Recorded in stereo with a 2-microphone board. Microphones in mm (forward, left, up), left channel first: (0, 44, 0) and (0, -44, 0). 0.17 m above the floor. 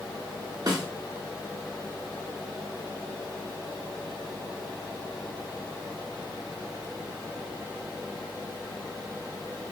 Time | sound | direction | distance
0.7 | a snare drum | 50° right (ahead or behind) | 0.9 m